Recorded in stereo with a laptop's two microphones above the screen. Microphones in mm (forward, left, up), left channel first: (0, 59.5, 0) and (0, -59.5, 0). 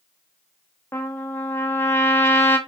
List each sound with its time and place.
0.9 s a trumpet: 20° left (ahead or behind), 1.5 m